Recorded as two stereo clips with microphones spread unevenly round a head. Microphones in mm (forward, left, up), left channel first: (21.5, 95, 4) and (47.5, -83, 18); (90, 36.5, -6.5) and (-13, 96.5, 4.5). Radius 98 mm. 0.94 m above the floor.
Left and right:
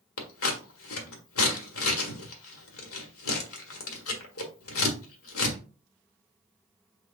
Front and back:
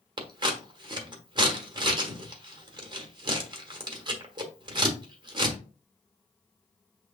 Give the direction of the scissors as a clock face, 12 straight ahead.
9 o'clock.